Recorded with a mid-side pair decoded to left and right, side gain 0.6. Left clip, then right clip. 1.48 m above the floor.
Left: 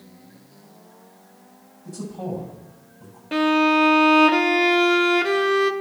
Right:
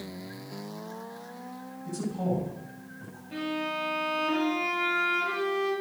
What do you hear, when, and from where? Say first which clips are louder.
1.9 s a man speaking: even; 5° left, 9.5 m
3.3 s a violin: left 14 dB; 65° left, 1.4 m